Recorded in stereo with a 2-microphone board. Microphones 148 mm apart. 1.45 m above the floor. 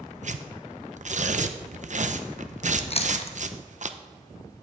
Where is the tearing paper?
55° right (ahead or behind), 0.6 m.